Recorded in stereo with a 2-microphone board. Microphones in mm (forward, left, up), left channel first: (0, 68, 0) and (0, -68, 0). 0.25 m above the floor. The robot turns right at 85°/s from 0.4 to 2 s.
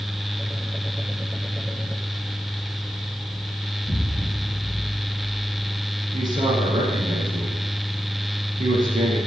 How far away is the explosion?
About 0.8 m.